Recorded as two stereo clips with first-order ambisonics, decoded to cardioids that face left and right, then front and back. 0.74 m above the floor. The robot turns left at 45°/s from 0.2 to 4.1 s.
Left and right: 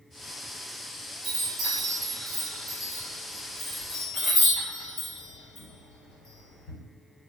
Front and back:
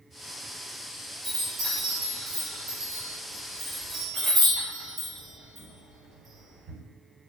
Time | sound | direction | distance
1.2 | a chime | 120° right | 1.4 m